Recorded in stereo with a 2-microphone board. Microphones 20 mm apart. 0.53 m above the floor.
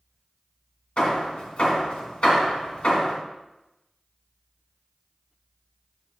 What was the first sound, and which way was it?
Hammering, 60° left (ahead or behind).